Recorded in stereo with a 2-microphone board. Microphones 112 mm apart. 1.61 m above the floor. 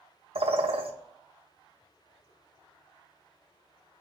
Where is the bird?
60° right (ahead or behind), 0.6 m.